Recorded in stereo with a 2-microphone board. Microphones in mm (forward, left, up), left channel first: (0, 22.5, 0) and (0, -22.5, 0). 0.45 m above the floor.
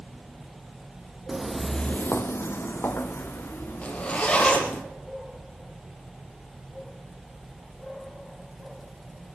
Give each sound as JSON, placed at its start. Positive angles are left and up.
{"t": 1.3, "sound": "footsteps", "side_deg": -15, "distance_m": 0.9}
{"t": 3.8, "sound": "a zipper", "side_deg": 25, "distance_m": 3.5}